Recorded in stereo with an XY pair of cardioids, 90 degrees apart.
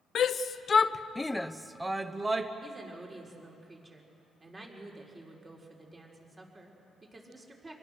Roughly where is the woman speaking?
Ahead right.